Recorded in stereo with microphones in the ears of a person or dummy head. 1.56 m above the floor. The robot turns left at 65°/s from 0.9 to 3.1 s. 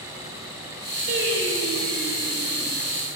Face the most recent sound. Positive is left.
turn(degrees=175)